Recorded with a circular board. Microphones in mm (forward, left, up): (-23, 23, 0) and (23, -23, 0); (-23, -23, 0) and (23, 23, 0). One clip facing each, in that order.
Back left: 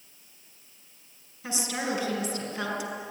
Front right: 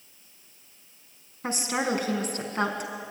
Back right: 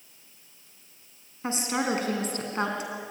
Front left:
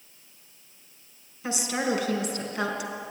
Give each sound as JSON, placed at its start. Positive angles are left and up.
{"t": 1.4, "sound": "a woman speaking", "azimuth_deg": -85, "distance_m": 4.0}